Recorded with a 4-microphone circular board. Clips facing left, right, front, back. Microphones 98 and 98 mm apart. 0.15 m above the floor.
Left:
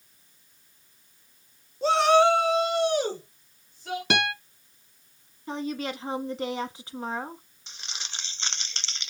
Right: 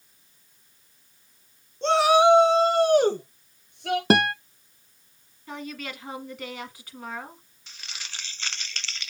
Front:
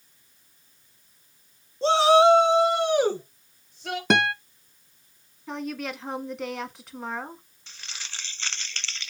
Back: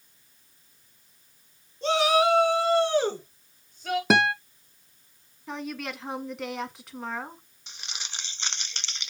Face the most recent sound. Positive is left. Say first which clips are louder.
# left 1 dB, back 1 dB
turn(degrees=130)